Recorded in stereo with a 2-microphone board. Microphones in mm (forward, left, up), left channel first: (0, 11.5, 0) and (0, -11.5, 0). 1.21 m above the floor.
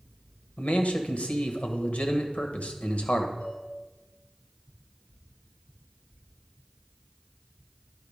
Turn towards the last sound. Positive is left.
turn(degrees=75)  # may be behind; listen again after turning